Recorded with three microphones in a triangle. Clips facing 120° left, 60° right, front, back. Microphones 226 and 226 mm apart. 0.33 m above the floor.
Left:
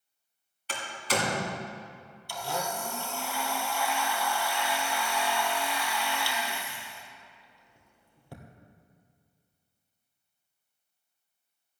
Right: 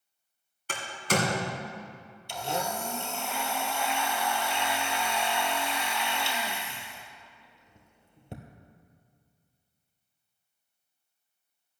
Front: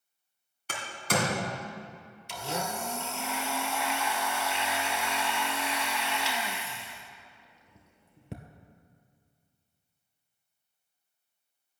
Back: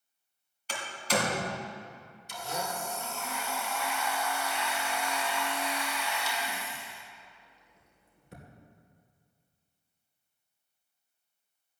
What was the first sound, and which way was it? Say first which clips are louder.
A door slam: right 2 dB, even; 25° right.